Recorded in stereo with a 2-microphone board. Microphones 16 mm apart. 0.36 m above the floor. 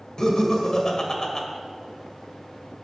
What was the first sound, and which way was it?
Laughter, 35° left (ahead or behind).